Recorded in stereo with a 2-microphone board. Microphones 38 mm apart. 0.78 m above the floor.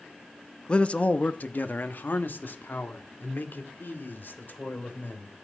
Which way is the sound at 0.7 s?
30° left (ahead or behind).